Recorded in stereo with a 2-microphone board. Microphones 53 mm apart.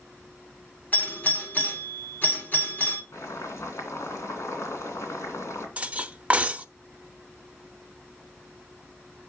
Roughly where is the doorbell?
Left.